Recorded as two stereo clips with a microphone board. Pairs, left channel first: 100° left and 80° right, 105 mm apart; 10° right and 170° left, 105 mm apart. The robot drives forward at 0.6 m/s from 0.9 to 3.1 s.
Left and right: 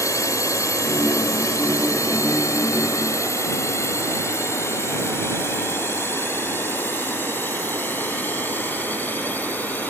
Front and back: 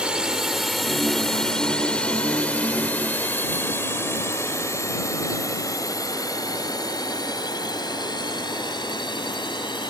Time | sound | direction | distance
0.0 | a drone | 95° left | ?